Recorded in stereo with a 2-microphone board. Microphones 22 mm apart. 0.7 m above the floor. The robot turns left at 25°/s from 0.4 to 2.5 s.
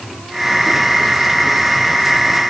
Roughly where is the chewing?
I don't hear chewing.